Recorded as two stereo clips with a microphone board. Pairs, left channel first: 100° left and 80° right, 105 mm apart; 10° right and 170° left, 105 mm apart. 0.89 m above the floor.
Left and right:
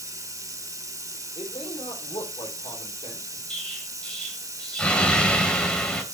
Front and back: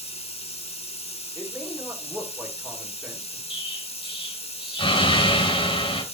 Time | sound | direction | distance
0.0 | running water | 20° right | 1.2 m
1.4 | a man speaking | 85° left | 3 m
3.5 | an explosion | 20° left | 2.5 m